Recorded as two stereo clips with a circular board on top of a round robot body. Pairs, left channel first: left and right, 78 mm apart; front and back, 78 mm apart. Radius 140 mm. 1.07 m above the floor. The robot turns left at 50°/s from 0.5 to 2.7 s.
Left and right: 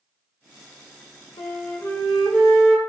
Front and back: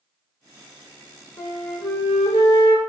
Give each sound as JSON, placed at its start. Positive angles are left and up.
{"t": 1.4, "sound": "a flute", "azimuth_deg": 60, "distance_m": 1.2}